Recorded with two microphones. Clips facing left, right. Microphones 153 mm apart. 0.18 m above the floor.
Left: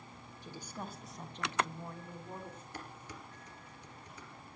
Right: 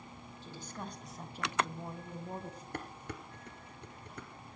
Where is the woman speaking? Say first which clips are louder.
Even; 15° left (ahead or behind), 2 m; by 2.6 s 40° right (ahead or behind), 1.9 m.